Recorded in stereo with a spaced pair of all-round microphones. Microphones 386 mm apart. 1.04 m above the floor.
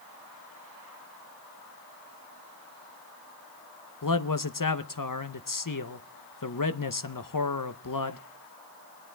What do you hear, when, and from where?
4.0 s a man speaking: 55° left (ahead or behind), 0.7 m